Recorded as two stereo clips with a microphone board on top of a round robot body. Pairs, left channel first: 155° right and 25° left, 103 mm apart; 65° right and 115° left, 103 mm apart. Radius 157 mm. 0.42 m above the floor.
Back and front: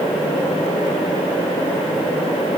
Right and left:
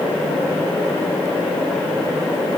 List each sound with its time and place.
Only background noise.